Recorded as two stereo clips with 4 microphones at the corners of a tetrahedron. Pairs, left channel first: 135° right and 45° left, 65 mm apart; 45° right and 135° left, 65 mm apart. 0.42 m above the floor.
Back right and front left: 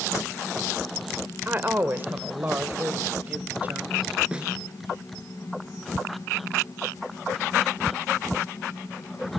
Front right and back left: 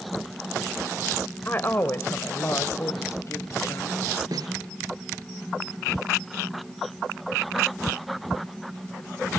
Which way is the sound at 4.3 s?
120° left.